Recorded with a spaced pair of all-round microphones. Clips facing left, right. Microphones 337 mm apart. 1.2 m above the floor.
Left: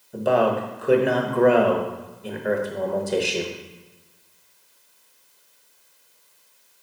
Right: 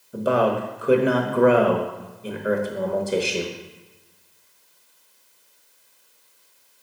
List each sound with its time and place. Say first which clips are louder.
0.1 s a man speaking: even; 5° right (ahead or behind), 1.0 m